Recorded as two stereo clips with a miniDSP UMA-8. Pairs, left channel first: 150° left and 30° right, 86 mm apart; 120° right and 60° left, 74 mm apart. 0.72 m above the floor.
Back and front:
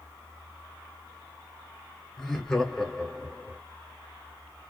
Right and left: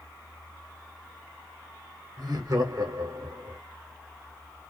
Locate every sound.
2.2 s laughter: 65° left, 1.1 m